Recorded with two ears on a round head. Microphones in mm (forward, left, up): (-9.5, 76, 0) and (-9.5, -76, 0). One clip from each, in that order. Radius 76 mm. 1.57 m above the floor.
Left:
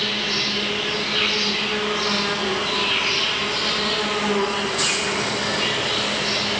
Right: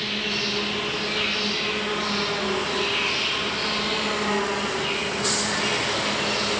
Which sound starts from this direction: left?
An insect, at 0.0 s.